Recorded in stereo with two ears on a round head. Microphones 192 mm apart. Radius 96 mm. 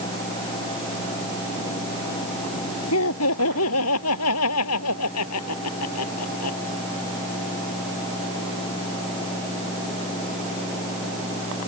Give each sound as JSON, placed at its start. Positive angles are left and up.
{"t": 2.9, "sound": "laughter", "side_deg": 75}